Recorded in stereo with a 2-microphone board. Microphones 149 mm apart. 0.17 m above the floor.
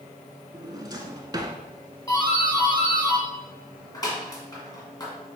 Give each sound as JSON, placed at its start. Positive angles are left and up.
{"t": 0.5, "sound": "a drawer", "side_deg": -25, "distance_m": 0.6}
{"t": 2.1, "sound": "a doorbell", "side_deg": 25, "distance_m": 1.6}